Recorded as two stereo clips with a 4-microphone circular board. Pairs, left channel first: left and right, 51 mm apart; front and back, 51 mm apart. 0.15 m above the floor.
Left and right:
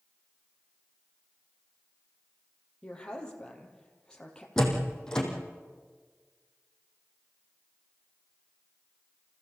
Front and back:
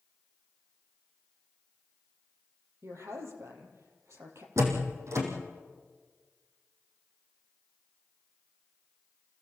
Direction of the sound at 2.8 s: 160° left.